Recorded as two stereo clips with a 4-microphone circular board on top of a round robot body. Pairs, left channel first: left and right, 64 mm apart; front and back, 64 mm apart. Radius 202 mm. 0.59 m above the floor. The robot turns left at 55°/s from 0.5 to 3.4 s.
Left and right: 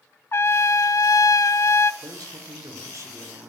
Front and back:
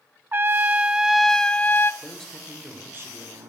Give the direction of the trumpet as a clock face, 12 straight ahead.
8 o'clock.